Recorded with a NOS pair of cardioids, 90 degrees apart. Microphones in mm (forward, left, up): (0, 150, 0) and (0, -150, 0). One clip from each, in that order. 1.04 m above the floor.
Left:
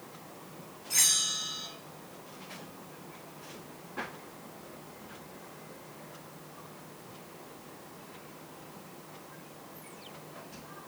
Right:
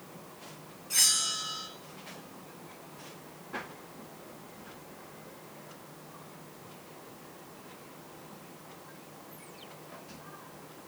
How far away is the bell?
About 1.1 m.